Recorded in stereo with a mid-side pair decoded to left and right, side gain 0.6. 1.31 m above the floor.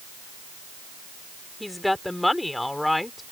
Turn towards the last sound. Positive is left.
turn(degrees=10)